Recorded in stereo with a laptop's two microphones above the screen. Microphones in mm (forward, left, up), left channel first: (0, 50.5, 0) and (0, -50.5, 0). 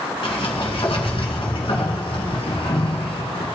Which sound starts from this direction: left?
A sliding door, at 0.2 s.